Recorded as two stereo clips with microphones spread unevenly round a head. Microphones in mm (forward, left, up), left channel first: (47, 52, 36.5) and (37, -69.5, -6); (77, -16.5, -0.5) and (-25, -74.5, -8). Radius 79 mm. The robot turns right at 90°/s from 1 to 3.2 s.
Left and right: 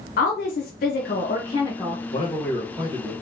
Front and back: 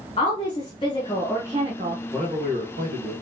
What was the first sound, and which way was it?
A woman speaking, 90° left.